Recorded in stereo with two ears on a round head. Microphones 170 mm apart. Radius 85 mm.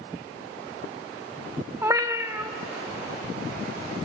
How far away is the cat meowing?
About 0.9 m.